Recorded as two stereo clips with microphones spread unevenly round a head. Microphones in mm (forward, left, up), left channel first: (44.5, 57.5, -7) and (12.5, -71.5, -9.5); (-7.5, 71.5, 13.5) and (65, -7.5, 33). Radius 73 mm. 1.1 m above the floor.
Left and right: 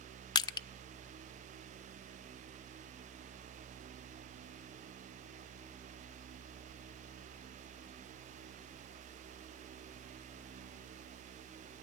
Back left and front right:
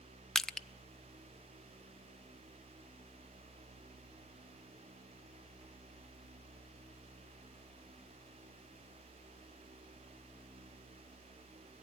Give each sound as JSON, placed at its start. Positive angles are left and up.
{"t": 0.3, "sound": "crushing", "azimuth_deg": 35, "distance_m": 0.6}